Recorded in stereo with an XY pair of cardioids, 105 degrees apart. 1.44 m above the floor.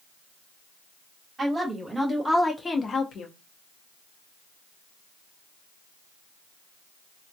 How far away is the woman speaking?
About 1.4 m.